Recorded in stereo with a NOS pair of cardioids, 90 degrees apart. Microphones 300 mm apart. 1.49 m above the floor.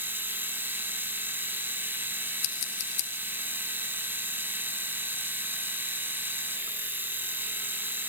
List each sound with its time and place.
0.0 s a machine running: 5° right, 2 m
2.4 s scissors: 60° left, 2.5 m